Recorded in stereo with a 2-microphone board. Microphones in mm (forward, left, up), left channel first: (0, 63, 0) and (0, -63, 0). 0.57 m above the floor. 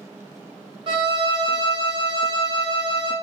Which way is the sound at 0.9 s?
40° right (ahead or behind).